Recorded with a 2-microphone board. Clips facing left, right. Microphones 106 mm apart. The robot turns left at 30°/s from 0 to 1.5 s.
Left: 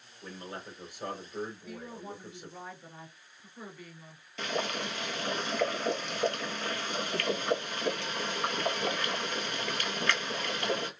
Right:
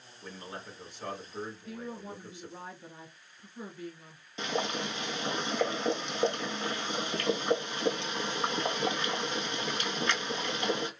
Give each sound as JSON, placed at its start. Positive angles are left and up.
{"t": 0.2, "sound": "a man speaking", "azimuth_deg": -175, "distance_m": 1.8}
{"t": 1.6, "sound": "a woman speaking", "side_deg": -25, "distance_m": 1.3}
{"t": 4.4, "sound": "boiling", "side_deg": -20, "distance_m": 0.7}